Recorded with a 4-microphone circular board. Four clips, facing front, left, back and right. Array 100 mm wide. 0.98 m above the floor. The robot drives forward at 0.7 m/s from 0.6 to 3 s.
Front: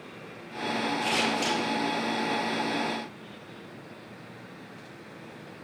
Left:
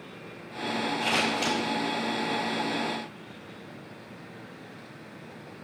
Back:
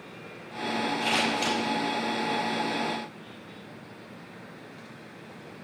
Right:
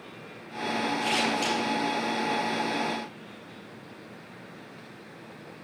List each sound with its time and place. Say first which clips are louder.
1.0 s scissors: even, back 1 dB; 105° left, 4.5 m; by 1.6 s 110° left, 4.5 m